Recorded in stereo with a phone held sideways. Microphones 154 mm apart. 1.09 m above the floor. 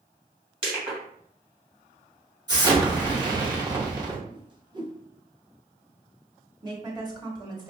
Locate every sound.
0.6 s crushing: 35° right (ahead or behind), 2 m
2.5 s an explosion: 25° right (ahead or behind), 1.0 m
4.3 s a whoosh: 30° right (ahead or behind), 0.6 m
6.6 s a woman speaking: 25° right (ahead or behind), 1.1 m